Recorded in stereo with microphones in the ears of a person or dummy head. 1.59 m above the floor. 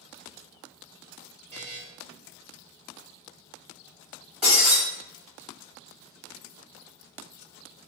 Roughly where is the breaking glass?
Right.